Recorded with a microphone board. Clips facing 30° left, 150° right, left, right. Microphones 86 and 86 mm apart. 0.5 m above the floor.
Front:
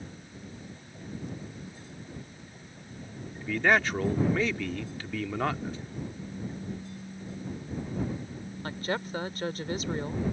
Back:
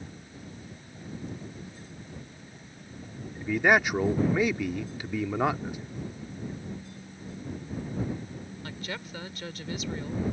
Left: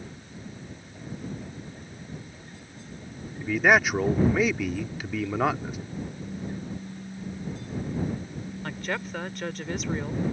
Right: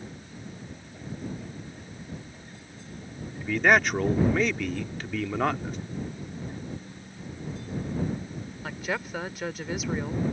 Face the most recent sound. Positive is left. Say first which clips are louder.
# front 8 dB, right 1 dB
turn(degrees=-5)